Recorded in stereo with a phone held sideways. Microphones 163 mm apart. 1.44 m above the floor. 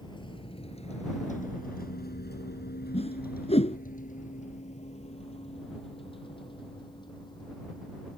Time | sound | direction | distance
0.0 | a vehicle | 30° left (ahead or behind) | ?
2.9 | a whoosh | 40° left (ahead or behind) | ?